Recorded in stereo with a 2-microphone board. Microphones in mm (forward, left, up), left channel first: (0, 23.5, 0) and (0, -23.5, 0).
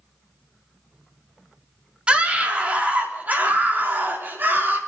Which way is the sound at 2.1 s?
25° right (ahead or behind).